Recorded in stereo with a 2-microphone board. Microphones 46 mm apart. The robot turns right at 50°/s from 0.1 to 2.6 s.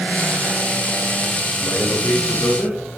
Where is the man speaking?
110° left, 4.5 m; by 2.8 s 160° left, 4.5 m.